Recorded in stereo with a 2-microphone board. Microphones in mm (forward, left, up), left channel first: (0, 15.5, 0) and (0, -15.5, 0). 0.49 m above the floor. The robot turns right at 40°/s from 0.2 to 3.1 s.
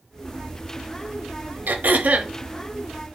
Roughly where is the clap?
No clap in this recording.